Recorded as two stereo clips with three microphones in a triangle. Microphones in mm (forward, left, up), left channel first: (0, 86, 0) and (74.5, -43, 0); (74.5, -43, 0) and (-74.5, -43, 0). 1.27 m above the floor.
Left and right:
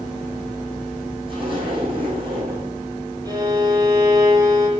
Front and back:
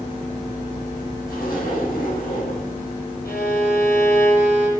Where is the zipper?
5° right, 9 m.